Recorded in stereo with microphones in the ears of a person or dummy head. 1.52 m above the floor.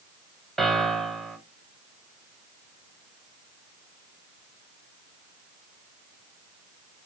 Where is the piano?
Centre (ahead or behind), 1.4 m.